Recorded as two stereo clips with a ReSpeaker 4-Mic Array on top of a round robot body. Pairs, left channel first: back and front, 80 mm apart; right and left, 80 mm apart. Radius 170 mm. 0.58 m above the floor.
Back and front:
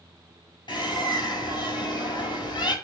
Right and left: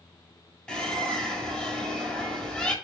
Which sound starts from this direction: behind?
A bird, at 0.7 s.